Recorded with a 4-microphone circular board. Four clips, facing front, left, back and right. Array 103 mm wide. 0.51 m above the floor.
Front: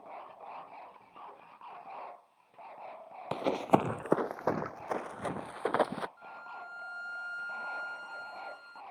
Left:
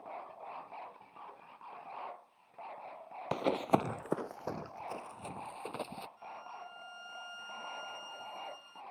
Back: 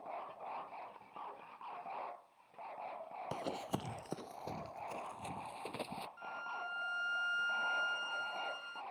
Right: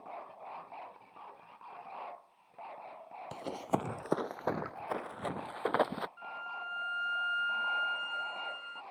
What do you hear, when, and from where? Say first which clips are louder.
3.3 s running footsteps: left 5 dB, front 14 dB; 60° left; by 6.1 s 40° right
6.2 s a violin: right 4 dB, back 1 dB; 100° right